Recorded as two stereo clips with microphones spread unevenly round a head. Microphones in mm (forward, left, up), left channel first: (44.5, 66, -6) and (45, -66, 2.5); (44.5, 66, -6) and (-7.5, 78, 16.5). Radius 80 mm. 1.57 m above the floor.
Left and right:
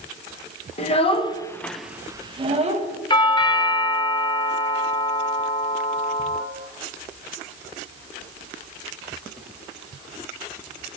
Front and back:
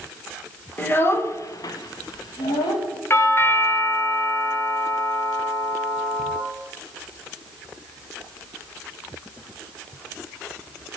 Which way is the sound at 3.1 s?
35° left.